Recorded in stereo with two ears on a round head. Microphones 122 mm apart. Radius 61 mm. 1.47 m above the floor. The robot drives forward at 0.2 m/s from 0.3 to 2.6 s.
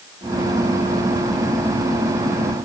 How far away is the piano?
I don't hear a piano.